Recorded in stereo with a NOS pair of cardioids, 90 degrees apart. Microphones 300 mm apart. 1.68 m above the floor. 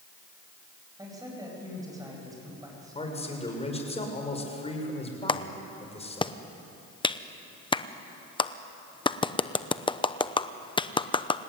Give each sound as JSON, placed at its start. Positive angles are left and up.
{"t": 1.0, "sound": "a man speaking", "azimuth_deg": -10, "distance_m": 9.5}
{"t": 3.0, "sound": "a man speaking", "azimuth_deg": 20, "distance_m": 6.5}
{"t": 5.3, "sound": "a clap", "azimuth_deg": 15, "distance_m": 0.9}